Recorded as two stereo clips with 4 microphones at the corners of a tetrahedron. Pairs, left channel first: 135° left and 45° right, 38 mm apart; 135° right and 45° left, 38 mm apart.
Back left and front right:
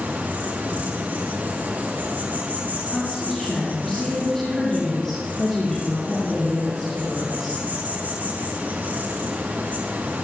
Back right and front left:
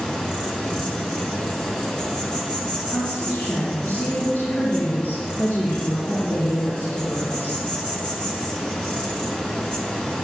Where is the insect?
75° right, 3.5 m.